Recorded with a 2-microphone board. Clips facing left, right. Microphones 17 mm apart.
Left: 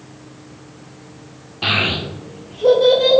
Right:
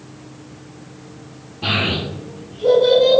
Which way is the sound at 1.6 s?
45° left (ahead or behind).